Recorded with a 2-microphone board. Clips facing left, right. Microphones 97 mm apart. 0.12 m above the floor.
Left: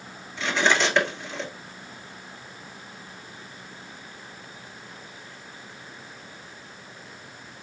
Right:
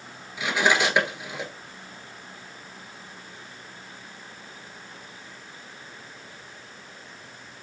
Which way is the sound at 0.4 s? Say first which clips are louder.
Even; 10° right (ahead or behind).